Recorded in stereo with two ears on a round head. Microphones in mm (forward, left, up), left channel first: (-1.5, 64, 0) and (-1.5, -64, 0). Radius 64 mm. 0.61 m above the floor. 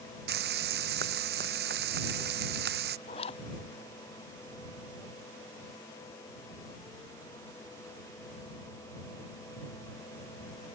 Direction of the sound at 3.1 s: 45° left (ahead or behind).